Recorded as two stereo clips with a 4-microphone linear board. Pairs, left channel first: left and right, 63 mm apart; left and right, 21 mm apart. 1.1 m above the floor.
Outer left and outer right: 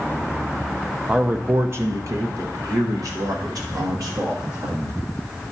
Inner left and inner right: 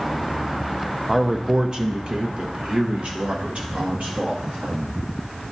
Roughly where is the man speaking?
Centre.